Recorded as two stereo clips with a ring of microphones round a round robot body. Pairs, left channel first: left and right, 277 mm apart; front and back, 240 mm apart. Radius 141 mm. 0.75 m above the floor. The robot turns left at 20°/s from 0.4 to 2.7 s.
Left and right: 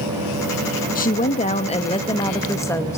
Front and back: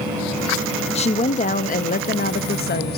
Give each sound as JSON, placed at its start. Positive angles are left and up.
{"t": 0.9, "sound": "a woman speaking", "azimuth_deg": 50, "distance_m": 0.7}